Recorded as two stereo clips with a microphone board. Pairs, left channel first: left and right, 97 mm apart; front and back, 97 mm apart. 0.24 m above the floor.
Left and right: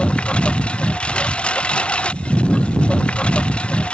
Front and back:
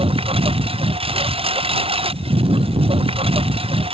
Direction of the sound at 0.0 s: 165° left.